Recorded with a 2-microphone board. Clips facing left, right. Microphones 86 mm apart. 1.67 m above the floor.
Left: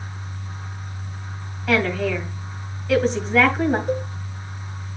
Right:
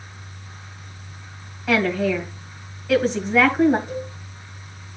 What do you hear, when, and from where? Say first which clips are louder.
1.7 s a woman speaking: right 1 dB; 5° right (ahead or behind), 2.5 m
3.9 s a cowbell: left 6 dB; 55° left (ahead or behind), 0.8 m